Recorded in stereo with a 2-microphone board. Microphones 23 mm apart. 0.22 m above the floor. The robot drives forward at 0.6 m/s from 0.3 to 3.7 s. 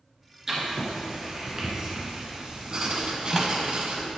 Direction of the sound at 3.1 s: Centre (ahead or behind).